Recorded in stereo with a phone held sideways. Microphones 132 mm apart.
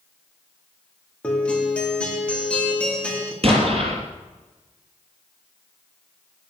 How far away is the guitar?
About 3 m.